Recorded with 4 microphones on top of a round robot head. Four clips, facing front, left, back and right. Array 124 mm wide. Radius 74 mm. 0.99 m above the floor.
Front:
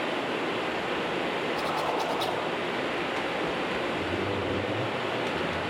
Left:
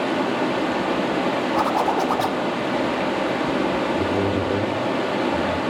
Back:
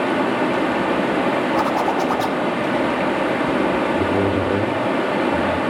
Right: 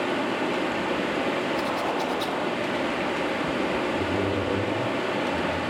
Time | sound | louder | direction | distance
0.0 | running water | left 4 dB, back 11 dB | 160° left | 1.8 m
1.6 | a zipper | left 6 dB, back 10 dB | 135° left | 2 m
3.9 | a man speaking | left 4 dB, back 11 dB | 165° left | 2.5 m